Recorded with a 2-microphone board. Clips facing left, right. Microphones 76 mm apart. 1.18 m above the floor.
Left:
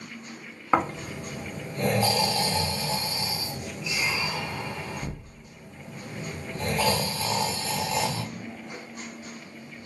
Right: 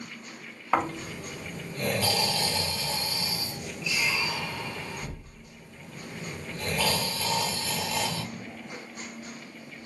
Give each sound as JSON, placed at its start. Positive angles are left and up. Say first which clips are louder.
{"t": 0.7, "sound": "snoring", "louder": "left 2 dB", "side_deg": 25, "distance_m": 0.7}